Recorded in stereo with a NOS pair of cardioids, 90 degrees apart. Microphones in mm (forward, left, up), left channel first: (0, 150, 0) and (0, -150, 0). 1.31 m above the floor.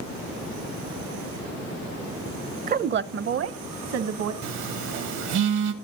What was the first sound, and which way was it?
A woman speaking, 30° right.